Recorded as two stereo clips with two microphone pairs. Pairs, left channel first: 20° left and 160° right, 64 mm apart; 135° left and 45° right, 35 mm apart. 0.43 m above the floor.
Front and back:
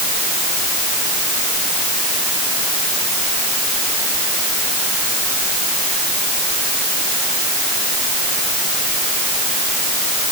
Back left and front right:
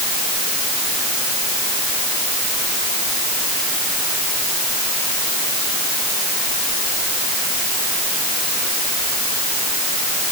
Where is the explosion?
I don't hear an explosion.